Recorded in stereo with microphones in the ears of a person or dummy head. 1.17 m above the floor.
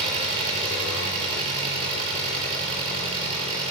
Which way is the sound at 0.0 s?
35° right (ahead or behind).